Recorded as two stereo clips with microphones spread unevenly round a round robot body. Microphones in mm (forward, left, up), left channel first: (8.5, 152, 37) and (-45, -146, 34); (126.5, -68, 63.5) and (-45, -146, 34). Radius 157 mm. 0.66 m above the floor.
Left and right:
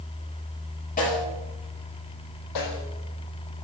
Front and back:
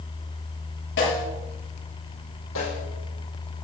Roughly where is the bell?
I don't hear a bell.